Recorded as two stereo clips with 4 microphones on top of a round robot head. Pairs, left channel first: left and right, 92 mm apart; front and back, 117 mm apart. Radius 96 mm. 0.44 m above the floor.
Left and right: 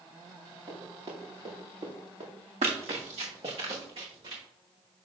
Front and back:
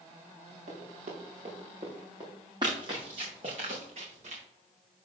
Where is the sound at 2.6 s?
115° right, 1.5 m; by 4.4 s 135° right, 4 m.